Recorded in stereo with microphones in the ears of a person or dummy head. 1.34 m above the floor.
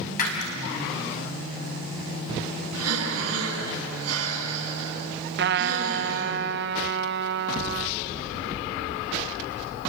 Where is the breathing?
90° right, 9.5 m.